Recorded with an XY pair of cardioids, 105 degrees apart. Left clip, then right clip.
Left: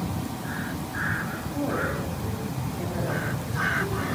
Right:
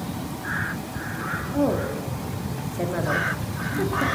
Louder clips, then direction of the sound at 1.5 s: Right 3 dB; 60° right.